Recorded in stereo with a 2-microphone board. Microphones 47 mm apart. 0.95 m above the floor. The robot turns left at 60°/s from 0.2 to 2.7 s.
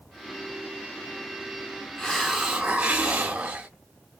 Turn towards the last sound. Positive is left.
turn(degrees=-25)